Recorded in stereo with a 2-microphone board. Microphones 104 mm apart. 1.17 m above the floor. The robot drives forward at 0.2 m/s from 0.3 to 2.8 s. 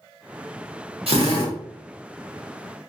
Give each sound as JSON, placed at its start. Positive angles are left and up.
{"t": 1.1, "sound": "a drill", "side_deg": -65, "distance_m": 1.1}